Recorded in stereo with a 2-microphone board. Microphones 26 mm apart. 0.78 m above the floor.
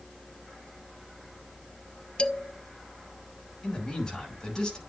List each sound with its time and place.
2.2 s a man speaking: 40° left (ahead or behind), 0.6 m
3.6 s a man speaking: 30° left (ahead or behind), 5.5 m